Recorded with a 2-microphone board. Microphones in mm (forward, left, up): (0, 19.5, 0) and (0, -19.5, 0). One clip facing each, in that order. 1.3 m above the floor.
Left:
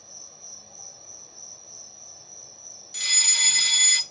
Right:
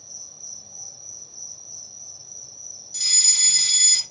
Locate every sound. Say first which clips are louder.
0.0 s an insect: right 1 dB; 20° left (ahead or behind), 1.6 m
2.9 s a fire alarm: left 2 dB; 40° left (ahead or behind), 1.3 m